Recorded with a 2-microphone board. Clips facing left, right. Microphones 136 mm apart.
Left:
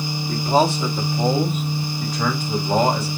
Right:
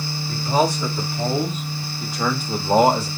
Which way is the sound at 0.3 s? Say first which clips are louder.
Left 2 dB; 30° left (ahead or behind).